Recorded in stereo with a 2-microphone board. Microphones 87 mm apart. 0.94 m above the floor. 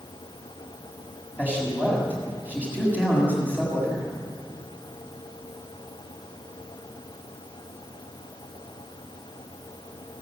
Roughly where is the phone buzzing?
I don't hear a phone buzzing.